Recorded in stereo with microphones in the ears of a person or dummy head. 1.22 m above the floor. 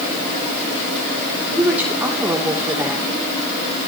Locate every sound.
1.6 s a woman speaking: 10° right (ahead or behind), 3.5 m